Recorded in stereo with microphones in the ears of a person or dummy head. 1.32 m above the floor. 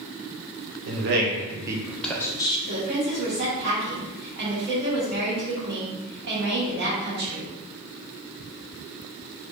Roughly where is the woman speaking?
Right.